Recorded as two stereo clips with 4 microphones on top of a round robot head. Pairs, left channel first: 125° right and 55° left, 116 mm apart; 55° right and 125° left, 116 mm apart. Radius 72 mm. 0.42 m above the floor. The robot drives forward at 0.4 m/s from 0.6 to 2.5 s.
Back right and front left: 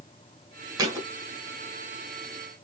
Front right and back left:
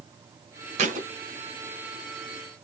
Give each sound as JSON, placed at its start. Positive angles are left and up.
{"t": 0.8, "sound": "a thud", "azimuth_deg": 110, "distance_m": 1.5}